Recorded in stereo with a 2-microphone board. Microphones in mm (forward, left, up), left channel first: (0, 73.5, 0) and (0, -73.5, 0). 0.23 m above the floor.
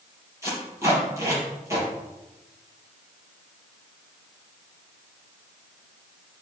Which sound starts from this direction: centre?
Tape being pulled, at 0.4 s.